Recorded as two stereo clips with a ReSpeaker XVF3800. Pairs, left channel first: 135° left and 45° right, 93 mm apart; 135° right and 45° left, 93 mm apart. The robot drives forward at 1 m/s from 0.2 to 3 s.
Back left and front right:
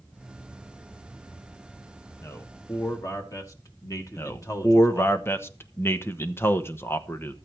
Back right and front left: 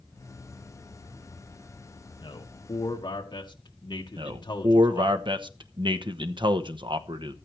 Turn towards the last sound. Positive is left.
turn(degrees=70)